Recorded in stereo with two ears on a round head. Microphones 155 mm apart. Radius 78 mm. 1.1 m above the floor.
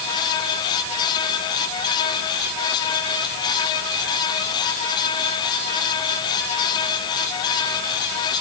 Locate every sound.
Only background noise.